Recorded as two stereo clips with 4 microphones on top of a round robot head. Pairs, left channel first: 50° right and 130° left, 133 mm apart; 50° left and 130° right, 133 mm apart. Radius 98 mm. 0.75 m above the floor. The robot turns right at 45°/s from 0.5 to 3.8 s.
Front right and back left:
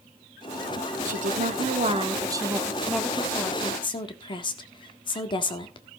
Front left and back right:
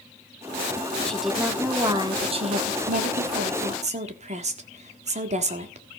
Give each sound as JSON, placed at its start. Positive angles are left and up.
{"t": 1.1, "sound": "a woman speaking", "azimuth_deg": 135, "distance_m": 1.6}